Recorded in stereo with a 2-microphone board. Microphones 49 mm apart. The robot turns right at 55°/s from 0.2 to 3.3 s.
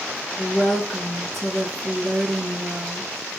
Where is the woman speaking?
125° left, 2 m; by 3.3 s 80° right, 2 m.